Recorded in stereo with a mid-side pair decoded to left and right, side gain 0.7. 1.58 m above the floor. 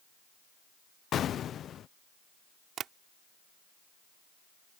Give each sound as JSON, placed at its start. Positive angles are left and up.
{"t": 1.1, "sound": "an explosion", "azimuth_deg": 40}
{"t": 2.8, "sound": "tapping", "azimuth_deg": -40}